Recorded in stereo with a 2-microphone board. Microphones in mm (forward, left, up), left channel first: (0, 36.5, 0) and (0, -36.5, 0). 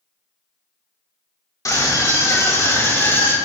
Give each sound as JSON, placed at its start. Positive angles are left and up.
{"t": 1.6, "sound": "a scream", "side_deg": 50, "distance_m": 2.5}